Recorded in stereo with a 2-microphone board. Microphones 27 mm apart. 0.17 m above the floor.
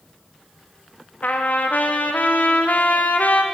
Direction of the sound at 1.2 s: 80° left.